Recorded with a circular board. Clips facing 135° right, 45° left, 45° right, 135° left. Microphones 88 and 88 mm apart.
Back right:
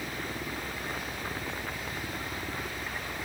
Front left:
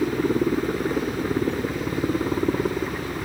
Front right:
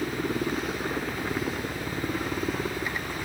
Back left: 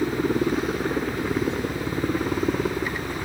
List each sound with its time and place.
0.0 s a helicopter: 70° left